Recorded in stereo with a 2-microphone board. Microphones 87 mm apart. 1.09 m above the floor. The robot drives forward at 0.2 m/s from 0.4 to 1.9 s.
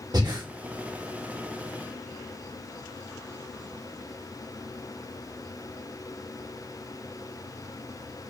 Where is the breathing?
50° right (ahead or behind), 0.7 m.